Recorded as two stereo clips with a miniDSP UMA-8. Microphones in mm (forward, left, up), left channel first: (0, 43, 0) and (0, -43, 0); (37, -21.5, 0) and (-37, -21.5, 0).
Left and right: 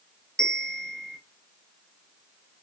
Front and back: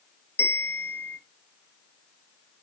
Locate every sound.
0.4 s a bell: 10° left, 0.7 m